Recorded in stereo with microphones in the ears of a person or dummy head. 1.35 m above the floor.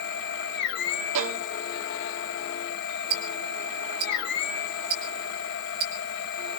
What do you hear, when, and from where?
0.0 s a machine running: 60° left (ahead or behind), 1.7 m
1.1 s a violin: 65° right (ahead or behind), 0.6 m
3.1 s ticking: 55° right (ahead or behind), 4 m